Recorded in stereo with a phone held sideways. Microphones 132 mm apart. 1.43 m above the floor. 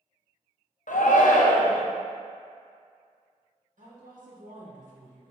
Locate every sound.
0.9 s a shout: 80° left, 0.6 m
3.8 s a woman speaking: 85° right, 1.3 m